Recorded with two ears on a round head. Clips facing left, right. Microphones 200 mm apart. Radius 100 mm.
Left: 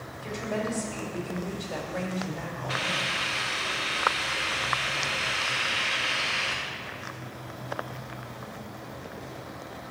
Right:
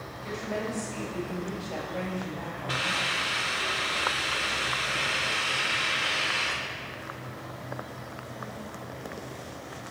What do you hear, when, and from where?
0.2 s a woman speaking: 25° left (ahead or behind), 3.5 m
2.7 s a hiss: 45° right (ahead or behind), 1.7 m